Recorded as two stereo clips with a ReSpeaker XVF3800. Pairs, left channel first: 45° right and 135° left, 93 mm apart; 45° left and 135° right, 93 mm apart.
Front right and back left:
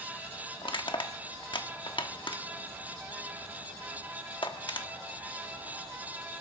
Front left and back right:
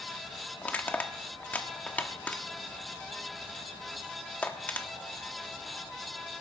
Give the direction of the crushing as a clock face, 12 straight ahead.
1 o'clock.